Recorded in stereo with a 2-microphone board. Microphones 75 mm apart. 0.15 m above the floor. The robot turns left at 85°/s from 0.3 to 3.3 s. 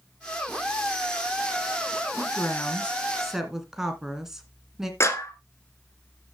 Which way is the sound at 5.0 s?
35° left (ahead or behind).